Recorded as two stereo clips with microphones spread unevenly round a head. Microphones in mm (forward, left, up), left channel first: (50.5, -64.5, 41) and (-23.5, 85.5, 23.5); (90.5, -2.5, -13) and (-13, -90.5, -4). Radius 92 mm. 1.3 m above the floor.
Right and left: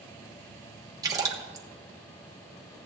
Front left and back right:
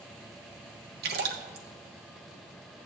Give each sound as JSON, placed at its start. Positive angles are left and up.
{"t": 1.0, "sound": "a splash", "azimuth_deg": -175, "distance_m": 1.0}